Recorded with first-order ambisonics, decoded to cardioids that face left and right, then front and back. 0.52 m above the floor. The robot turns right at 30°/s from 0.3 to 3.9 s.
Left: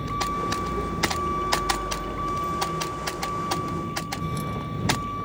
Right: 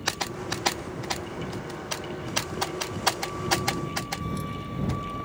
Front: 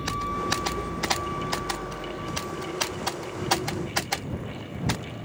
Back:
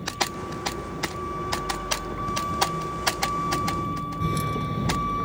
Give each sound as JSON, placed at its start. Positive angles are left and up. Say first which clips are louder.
{"t": 0.0, "sound": "a vehicle", "louder": "left 4 dB, even", "azimuth_deg": 60}